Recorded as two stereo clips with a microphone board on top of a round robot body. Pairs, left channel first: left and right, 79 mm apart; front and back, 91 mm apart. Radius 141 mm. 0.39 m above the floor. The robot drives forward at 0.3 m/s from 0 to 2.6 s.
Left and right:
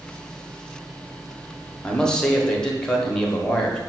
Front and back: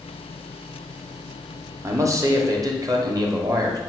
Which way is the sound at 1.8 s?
160° left.